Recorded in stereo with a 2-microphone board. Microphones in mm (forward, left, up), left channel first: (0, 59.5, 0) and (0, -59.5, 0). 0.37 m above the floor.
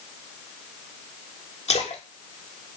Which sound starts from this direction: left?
A splash, at 1.7 s.